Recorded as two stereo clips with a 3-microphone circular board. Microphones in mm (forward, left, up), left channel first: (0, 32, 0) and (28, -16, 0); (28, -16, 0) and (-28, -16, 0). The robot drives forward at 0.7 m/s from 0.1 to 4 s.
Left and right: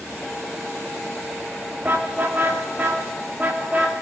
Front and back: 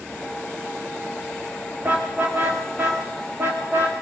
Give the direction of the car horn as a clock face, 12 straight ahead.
4 o'clock.